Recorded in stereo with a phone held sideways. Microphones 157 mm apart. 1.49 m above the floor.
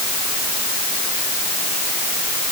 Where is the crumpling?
I don't hear crumpling.